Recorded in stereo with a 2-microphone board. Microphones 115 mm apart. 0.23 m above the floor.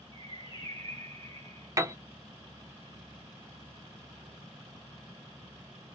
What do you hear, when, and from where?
0.1 s a bird: 45° left (ahead or behind), 2.5 m
1.8 s a piano: 30° right (ahead or behind), 0.6 m